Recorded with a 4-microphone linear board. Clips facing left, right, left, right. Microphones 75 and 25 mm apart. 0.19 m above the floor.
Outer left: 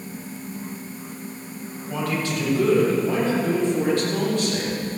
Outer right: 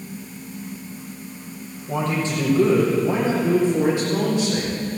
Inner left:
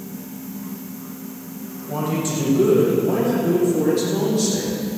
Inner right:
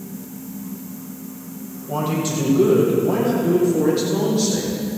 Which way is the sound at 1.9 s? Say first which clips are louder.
Outer right 2 dB, inner right 1 dB; 25° right (ahead or behind).